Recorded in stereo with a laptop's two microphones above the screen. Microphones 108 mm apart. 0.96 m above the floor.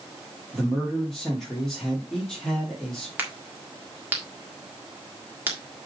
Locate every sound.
0.5 s a man speaking: 5° left (ahead or behind), 3 m
3.2 s a crack: 20° right (ahead or behind), 1.6 m